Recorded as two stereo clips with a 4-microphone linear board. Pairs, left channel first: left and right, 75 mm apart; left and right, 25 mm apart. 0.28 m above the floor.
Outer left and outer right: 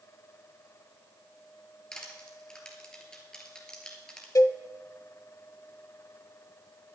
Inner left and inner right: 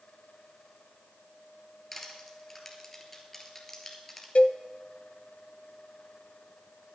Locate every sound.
1.9 s crushing: 10° left (ahead or behind), 2 m
4.3 s a cowbell: 50° left (ahead or behind), 0.6 m